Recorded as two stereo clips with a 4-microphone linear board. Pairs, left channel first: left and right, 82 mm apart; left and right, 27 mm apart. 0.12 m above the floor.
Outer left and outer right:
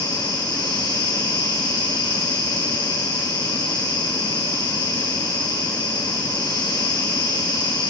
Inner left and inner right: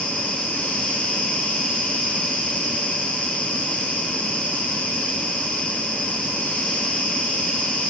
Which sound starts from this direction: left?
An insect, at 0.0 s.